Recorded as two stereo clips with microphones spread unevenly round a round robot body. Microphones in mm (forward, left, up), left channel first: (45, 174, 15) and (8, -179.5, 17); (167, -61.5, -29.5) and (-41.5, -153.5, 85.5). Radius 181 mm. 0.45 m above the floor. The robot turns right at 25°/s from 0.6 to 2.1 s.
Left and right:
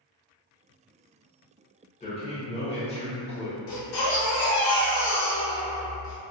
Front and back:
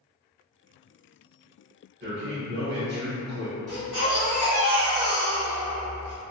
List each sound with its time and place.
2.0 s a man speaking: 140° left, 0.8 m; by 3.6 s 145° left, 0.8 m
3.7 s a baby crying: 100° left, 1.0 m